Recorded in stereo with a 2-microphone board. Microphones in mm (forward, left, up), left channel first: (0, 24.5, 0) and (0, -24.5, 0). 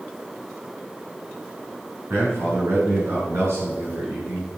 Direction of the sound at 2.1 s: 65° right (ahead or behind).